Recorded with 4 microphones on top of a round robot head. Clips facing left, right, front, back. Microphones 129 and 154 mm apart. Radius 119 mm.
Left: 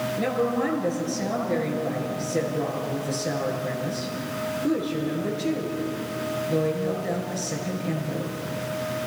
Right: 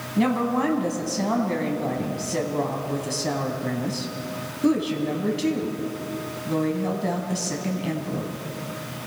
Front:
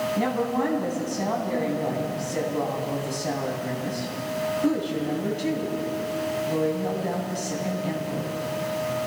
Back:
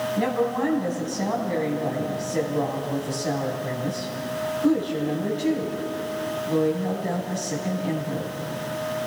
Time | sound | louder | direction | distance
0.2 | a woman speaking | right 4 dB, back 3 dB | 80° right | 3.5 m